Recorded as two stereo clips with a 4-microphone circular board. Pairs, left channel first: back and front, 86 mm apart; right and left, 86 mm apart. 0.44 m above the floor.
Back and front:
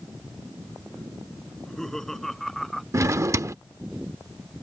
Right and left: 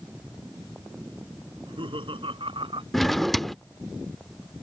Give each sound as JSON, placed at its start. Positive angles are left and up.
{"t": 1.5, "sound": "laughter", "azimuth_deg": 95}
{"t": 2.9, "sound": "a drawer", "azimuth_deg": -5}